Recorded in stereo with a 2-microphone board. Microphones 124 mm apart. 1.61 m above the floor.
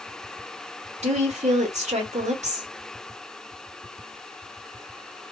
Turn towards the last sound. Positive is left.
turn(degrees=-70)  # may be behind; listen again after turning